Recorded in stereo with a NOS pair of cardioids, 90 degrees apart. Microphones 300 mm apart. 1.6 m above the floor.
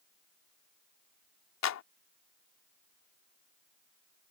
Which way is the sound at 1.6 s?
65° left.